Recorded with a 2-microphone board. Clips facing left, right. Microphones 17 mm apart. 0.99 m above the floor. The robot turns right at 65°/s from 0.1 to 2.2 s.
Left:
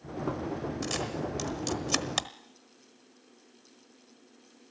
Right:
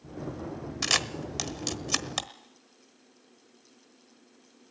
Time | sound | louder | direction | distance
0.8 | a camera shutter | right 10 dB | 60° right (ahead or behind) | 1.1 m